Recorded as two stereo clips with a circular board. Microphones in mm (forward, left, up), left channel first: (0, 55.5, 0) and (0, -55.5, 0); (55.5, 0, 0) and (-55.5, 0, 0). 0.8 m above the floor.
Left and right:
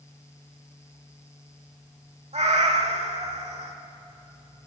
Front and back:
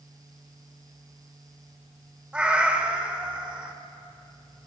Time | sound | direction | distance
2.3 | a cat meowing | 100° right | 1.5 m